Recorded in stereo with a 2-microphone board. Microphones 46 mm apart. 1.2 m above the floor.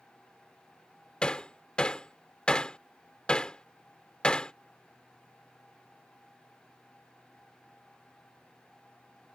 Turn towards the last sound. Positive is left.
turn(degrees=20)  # may be behind; listen again after turning